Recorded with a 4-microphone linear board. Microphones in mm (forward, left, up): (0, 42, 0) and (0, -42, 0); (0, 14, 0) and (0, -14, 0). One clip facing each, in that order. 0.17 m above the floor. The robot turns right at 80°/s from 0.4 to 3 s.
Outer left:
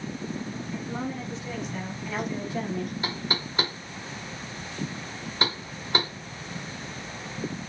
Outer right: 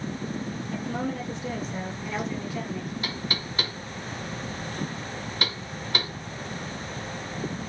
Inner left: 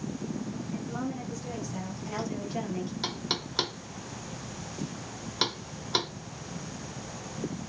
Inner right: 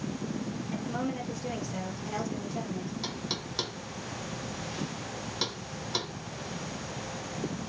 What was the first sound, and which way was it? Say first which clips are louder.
A woman speaking: outer right 3 dB, inner right 2 dB; 115° right.